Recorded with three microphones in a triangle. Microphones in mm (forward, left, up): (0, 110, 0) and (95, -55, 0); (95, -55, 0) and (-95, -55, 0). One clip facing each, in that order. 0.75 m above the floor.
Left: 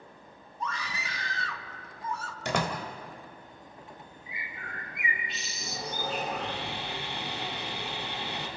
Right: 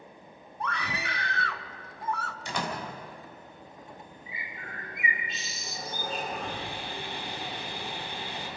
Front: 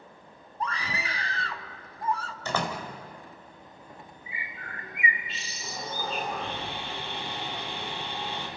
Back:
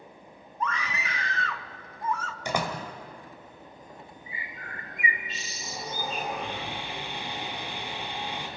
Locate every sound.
0.6 s a scream: 55° right, 1.1 m
2.5 s a door slam: 105° left, 2.5 m
4.3 s a bird: 135° left, 2.5 m
5.6 s sawing: 105° left, 3.5 m